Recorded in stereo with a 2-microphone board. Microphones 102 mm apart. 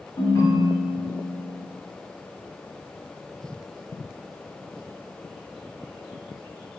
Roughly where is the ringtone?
Left.